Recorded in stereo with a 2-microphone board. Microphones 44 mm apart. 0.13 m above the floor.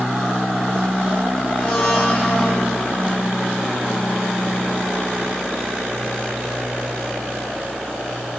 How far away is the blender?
About 6.5 m.